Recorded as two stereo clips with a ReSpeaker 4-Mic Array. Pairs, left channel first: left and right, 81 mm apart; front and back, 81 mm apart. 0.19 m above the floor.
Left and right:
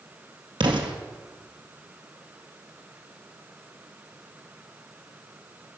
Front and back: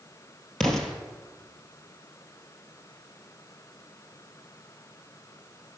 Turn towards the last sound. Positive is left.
turn(degrees=-85)